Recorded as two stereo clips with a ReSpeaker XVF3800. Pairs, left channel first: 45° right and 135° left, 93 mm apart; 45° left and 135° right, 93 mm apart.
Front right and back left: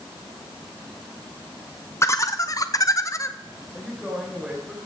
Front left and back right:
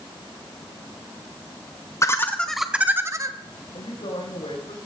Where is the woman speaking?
50° left, 5 m.